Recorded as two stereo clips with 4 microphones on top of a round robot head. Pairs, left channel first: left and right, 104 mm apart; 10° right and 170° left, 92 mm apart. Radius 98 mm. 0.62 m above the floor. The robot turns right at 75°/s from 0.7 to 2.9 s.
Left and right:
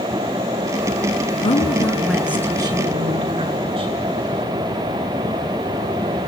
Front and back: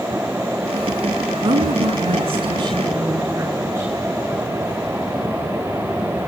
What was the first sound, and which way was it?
A woman speaking, 125° left.